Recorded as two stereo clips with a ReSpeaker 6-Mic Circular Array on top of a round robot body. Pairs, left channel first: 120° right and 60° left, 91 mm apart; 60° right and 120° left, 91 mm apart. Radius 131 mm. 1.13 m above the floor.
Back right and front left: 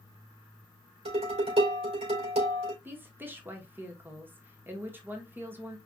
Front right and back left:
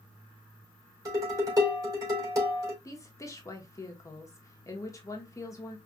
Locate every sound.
1.1 s dishes clattering: 65° left, 3.5 m
2.9 s a woman speaking: 10° right, 1.5 m